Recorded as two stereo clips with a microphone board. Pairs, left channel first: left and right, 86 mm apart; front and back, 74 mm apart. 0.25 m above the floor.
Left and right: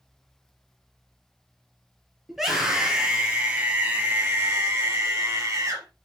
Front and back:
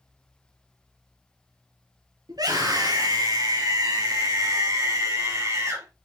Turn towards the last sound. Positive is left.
turn(degrees=-140)